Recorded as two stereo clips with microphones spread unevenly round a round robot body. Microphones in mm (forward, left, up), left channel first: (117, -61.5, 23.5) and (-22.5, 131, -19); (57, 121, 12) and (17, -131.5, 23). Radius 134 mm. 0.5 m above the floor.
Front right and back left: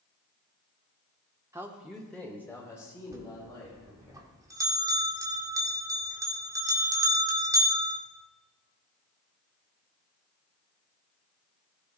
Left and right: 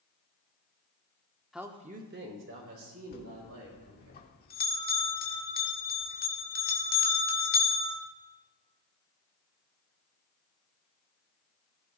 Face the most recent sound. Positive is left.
turn(degrees=70)